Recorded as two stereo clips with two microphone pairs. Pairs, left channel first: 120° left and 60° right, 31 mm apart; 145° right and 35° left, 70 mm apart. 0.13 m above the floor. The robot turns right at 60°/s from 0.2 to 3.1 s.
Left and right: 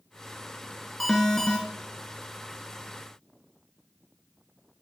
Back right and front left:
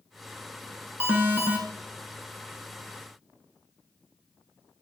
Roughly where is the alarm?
Ahead left.